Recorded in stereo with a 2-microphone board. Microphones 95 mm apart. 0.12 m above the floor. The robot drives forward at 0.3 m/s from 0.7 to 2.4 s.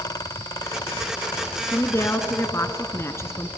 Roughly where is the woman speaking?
Left.